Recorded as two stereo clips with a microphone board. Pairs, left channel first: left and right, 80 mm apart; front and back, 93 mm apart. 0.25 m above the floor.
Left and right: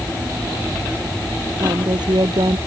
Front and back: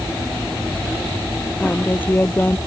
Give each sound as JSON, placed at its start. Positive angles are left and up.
{"t": 1.6, "sound": "a woman speaking", "azimuth_deg": -70}